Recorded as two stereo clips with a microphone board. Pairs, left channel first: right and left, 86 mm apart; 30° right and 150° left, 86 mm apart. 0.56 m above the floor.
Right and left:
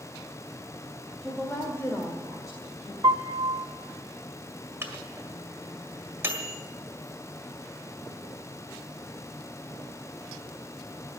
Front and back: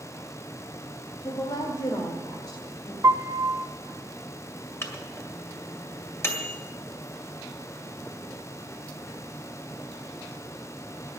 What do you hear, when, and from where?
1.2 s a woman speaking: 10° right, 1.6 m; by 2.9 s 60° right, 2.5 m
3.0 s a piano: 105° left, 0.8 m
4.8 s a microwave: 30° left, 1.9 m